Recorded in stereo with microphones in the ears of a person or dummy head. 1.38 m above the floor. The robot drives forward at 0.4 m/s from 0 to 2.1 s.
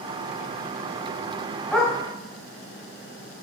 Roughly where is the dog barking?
Centre.